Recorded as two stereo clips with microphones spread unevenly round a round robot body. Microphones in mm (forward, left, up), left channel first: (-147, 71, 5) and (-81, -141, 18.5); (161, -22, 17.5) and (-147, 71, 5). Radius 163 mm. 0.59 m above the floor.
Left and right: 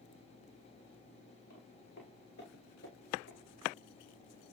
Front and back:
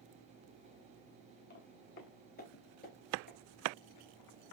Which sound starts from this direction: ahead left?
Footsteps, at 1.5 s.